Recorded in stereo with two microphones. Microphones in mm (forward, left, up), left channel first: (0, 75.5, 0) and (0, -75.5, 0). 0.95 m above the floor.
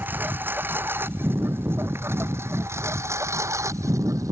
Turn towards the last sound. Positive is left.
turn(degrees=-20)  # may be behind; listen again after turning